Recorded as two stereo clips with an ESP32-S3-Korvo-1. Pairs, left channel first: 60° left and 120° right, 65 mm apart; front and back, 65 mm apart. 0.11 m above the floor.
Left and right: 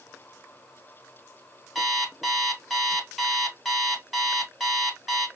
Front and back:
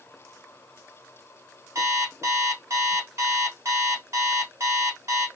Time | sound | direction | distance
1.8 | an alarm clock | 155° left | 1.6 m